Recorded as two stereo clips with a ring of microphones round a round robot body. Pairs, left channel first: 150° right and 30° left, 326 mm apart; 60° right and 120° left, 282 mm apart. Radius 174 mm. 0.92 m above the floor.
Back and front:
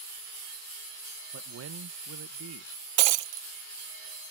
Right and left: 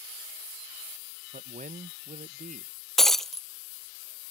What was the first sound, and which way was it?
A man speaking, 60° left.